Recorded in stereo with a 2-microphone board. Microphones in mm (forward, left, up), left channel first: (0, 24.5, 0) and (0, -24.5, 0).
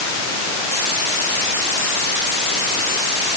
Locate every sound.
Only background noise.